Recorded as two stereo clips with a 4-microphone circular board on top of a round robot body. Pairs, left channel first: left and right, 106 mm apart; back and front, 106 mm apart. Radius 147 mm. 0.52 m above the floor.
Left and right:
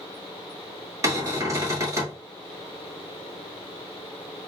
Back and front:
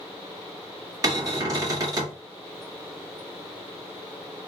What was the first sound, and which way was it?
A cupboard door, 40° right.